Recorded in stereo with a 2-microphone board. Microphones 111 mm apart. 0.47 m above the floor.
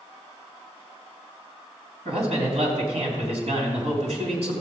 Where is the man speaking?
75° right (ahead or behind), 3.5 m.